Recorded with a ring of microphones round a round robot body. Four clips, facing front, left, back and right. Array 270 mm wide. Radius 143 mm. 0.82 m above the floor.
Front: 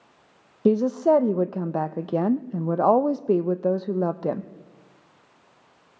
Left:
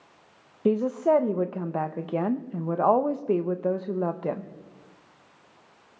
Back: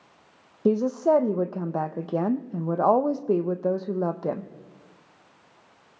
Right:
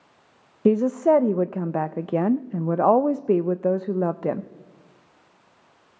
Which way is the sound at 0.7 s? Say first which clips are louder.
Right 4 dB, front 2 dB; 65° right.